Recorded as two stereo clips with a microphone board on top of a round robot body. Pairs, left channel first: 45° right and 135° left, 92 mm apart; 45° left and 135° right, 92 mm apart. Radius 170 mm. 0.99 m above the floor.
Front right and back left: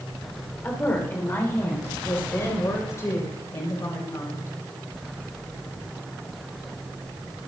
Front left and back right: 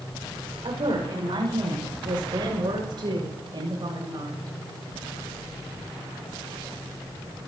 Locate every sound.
0.6 s a woman speaking: 115° right, 4.5 m; by 4.6 s 95° right, 7 m